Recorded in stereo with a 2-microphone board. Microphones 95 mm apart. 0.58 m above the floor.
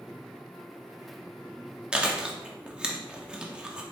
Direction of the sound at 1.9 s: 10° right (ahead or behind).